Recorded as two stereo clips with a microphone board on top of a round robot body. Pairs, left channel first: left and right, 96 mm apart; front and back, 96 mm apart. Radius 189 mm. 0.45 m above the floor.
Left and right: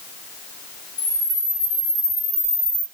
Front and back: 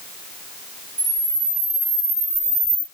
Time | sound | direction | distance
1.0 | a camera shutter | 150° left | 1.6 m